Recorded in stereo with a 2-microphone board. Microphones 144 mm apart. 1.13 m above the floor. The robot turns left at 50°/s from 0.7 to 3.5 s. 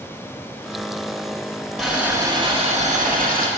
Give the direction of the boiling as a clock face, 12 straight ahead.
12 o'clock.